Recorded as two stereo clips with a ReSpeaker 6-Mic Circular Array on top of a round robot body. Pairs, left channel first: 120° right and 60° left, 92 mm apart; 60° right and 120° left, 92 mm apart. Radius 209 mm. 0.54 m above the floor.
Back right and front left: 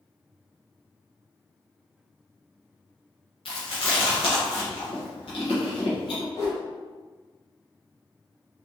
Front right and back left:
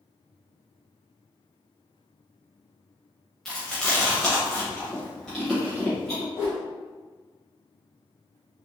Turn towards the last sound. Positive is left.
turn(degrees=-70)